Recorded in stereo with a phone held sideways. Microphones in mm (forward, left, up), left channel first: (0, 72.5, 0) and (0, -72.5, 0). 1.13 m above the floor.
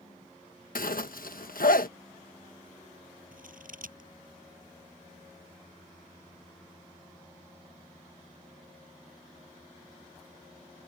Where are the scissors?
70° right (ahead or behind).